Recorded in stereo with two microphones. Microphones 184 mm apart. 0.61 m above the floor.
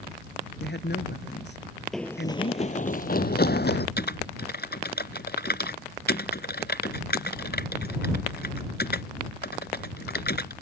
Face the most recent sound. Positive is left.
turn(degrees=65)  # may be behind; listen again after turning